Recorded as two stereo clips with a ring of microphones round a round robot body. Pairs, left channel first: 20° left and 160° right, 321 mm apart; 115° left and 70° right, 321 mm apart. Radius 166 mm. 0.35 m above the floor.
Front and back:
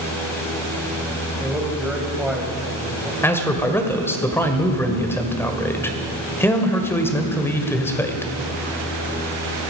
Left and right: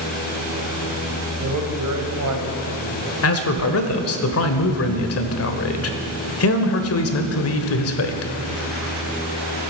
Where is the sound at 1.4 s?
70° right, 2.5 m.